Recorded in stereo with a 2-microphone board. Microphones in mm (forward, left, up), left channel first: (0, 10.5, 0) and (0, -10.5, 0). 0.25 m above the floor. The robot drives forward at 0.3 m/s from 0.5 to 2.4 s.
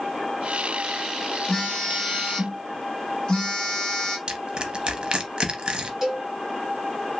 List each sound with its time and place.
1.5 s a phone buzzing: 40° left (ahead or behind), 1.5 m; by 4.2 s 35° left (ahead or behind), 1.6 m
4.3 s crushing: 45° right (ahead or behind), 0.6 m
6.0 s a cowbell: 10° right (ahead or behind), 1.8 m